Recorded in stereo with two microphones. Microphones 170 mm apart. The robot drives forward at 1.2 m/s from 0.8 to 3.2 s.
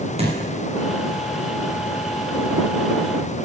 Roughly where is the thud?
Right.